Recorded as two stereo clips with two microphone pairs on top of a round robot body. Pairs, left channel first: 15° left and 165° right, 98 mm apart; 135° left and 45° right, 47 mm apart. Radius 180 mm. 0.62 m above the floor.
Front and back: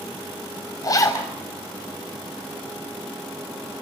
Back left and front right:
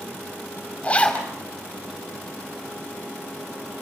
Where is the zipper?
65° left, 6 m.